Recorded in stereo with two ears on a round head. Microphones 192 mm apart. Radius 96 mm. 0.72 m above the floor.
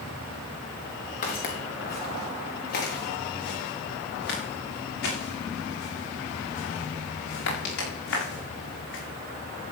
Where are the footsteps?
35° left (ahead or behind), 4 m; by 9.0 s 55° left (ahead or behind), 10 m.